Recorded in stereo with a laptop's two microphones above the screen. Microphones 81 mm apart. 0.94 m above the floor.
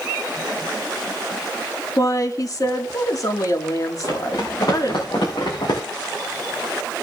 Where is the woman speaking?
45° left (ahead or behind), 2.5 m.